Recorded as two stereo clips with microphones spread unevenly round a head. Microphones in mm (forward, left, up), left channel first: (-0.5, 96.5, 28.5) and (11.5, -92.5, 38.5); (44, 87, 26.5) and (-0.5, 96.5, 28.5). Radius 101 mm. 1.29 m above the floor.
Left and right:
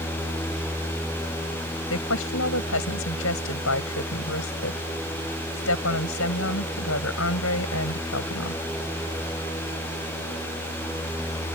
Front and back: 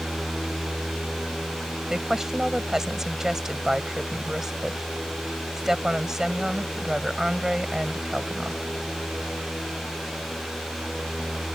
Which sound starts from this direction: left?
A woman speaking, at 1.9 s.